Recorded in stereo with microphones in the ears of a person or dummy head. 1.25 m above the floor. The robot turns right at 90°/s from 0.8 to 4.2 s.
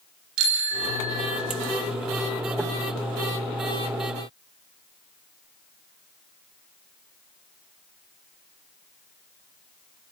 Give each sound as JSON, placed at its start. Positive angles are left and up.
{"t": 0.4, "sound": "a bicycle bell", "azimuth_deg": -60, "distance_m": 3.0}